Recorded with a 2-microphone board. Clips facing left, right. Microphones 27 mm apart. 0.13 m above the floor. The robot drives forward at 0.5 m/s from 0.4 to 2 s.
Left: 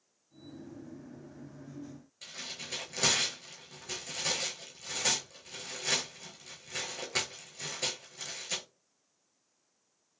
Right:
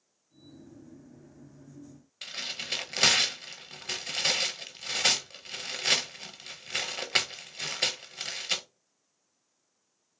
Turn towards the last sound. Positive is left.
turn(degrees=-70)  # may be behind; listen again after turning